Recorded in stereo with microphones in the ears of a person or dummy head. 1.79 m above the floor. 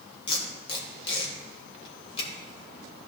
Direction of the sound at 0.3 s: 35° left (ahead or behind).